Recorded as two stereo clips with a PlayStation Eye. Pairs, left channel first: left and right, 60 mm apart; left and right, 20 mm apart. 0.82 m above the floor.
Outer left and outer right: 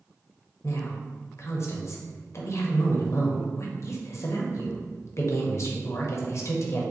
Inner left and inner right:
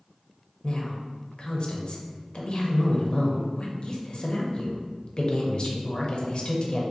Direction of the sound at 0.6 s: 55° left (ahead or behind).